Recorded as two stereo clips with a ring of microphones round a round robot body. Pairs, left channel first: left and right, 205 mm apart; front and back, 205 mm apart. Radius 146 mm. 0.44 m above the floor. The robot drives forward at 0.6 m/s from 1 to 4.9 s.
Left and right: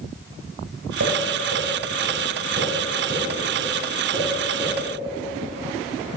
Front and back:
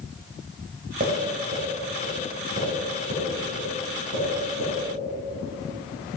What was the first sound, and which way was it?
Tapping, 120° right.